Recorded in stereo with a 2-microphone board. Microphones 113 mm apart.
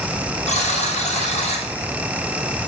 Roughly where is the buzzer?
Left.